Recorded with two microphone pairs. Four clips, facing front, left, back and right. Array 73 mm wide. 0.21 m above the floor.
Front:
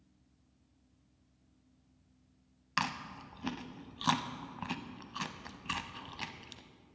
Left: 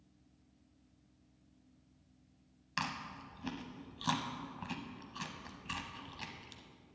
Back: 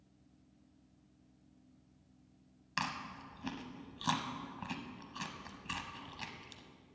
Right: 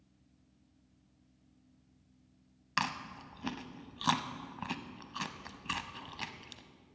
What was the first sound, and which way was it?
Chewing, 55° right.